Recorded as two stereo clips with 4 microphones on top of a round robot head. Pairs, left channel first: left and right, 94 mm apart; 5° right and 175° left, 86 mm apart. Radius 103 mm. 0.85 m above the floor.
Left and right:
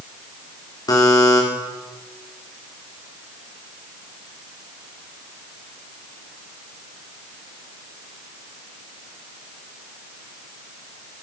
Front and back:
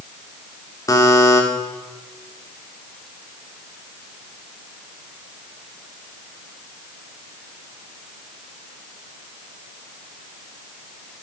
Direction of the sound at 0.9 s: 40° left.